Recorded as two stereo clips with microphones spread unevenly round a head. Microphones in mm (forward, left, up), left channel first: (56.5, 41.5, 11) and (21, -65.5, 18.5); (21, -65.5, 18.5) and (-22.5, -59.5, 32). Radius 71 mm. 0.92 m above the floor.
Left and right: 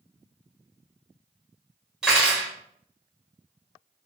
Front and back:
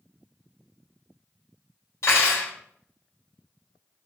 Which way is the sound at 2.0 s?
25° right.